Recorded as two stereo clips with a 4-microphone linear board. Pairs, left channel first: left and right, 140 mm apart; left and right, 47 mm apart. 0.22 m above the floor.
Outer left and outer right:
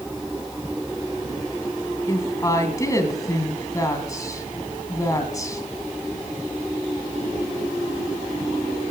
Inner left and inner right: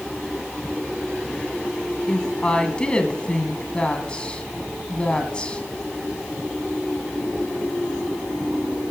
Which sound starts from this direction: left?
A woman speaking, at 2.1 s.